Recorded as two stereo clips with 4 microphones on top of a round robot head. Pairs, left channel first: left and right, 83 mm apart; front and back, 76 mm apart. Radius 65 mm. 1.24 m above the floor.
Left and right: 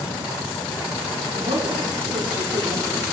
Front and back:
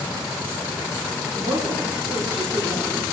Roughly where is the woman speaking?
Behind right.